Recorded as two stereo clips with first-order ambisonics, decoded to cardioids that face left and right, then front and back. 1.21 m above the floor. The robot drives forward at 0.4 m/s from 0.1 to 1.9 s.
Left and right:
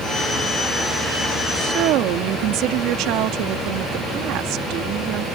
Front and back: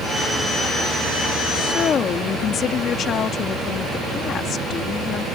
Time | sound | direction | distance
1.6 | a woman speaking | 55° right | ?